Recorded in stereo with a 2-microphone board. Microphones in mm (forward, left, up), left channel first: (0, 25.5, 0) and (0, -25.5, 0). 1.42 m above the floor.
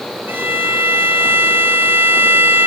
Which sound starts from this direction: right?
A violin, at 0.3 s.